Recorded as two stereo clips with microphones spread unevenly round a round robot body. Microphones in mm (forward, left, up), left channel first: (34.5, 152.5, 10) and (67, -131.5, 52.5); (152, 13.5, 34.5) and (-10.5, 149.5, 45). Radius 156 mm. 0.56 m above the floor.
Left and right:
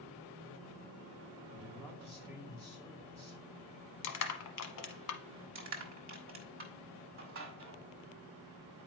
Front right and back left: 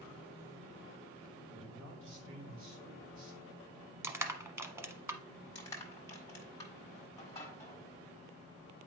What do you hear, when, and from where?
1.5 s a man speaking: 165° left, 2 m
4.0 s crushing: 60° left, 1.0 m
5.5 s crushing: 100° right, 1.5 m